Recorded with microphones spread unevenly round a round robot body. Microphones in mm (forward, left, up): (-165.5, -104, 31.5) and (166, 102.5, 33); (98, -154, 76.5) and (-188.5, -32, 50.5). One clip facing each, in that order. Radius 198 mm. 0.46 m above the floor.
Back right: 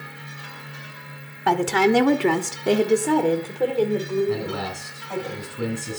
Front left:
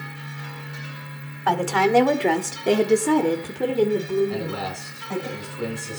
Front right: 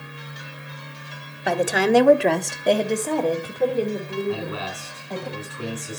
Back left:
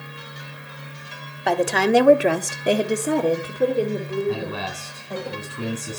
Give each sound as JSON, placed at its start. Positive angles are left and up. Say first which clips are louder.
{"t": 1.5, "sound": "a woman speaking", "louder": "back right 2 dB, even", "azimuth_deg": -115, "distance_m": 1.2}
{"t": 4.3, "sound": "a man speaking", "louder": "back right 3 dB, back left 1 dB", "azimuth_deg": -165, "distance_m": 4.5}